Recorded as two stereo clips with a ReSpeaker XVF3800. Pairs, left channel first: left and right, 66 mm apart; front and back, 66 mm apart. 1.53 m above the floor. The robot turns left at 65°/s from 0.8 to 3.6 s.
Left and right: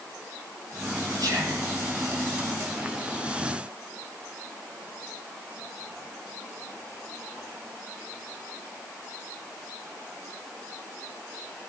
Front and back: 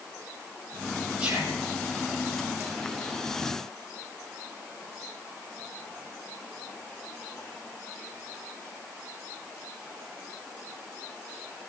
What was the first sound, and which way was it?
Whispering, 105° right.